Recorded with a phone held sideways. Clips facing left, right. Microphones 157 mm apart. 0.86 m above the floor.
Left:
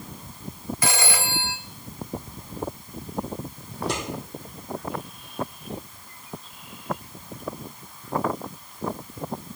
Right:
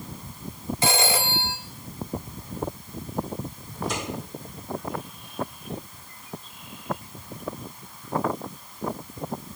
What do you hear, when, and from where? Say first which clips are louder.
0.8 s a phone ringing: right 3 dB; 25° right (ahead or behind), 1.0 m
3.7 s scissors: left 2 dB; 80° left, 5 m